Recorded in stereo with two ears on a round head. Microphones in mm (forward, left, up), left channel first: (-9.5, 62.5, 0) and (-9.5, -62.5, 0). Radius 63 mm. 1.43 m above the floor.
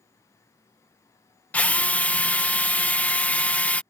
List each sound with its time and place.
1.5 s a drill: 10° left (ahead or behind)